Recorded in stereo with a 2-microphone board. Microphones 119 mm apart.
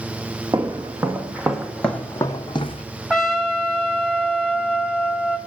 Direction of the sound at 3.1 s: Centre (ahead or behind).